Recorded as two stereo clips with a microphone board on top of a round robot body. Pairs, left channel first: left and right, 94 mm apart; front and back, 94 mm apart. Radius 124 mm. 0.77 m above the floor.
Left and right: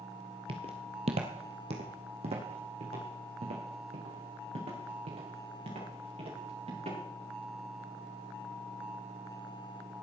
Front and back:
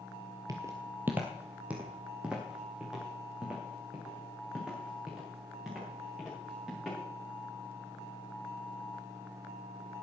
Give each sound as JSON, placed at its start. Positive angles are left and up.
{"t": 0.5, "sound": "footsteps", "azimuth_deg": -125, "distance_m": 1.0}